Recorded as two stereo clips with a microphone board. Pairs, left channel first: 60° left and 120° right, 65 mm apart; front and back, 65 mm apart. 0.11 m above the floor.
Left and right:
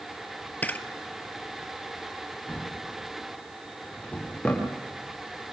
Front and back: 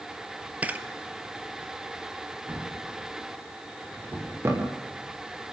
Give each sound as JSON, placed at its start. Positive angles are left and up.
{"t": 0.6, "sound": "a camera shutter", "azimuth_deg": 120, "distance_m": 1.1}
{"t": 2.5, "sound": "a drawer", "azimuth_deg": 130, "distance_m": 6.0}